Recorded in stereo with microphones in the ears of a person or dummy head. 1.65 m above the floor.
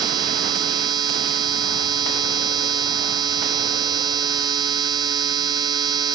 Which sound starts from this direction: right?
A machine running, at 0.0 s.